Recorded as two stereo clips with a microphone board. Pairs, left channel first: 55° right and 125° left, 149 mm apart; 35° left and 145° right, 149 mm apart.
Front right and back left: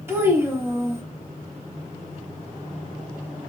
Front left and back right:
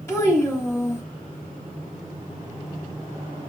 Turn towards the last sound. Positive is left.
turn(degrees=75)